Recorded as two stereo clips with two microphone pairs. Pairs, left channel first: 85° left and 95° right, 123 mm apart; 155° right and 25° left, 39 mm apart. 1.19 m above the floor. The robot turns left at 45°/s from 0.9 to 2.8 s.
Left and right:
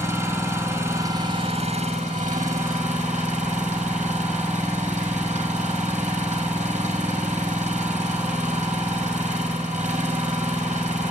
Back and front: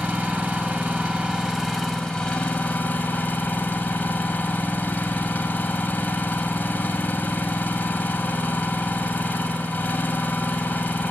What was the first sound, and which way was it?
An engine running, 25° right.